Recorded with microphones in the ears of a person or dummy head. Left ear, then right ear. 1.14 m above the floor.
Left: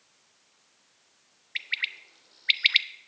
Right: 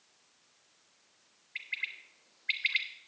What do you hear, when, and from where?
1.6 s a bird: 40° left (ahead or behind), 0.5 m